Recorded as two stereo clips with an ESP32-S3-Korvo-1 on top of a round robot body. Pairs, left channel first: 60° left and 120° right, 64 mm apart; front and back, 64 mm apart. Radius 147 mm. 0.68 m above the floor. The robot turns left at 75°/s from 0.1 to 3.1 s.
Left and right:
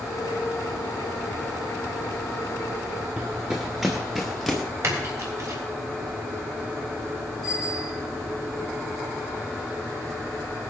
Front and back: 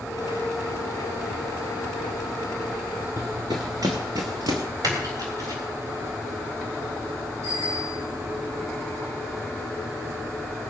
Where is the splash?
165° right, 3.5 m.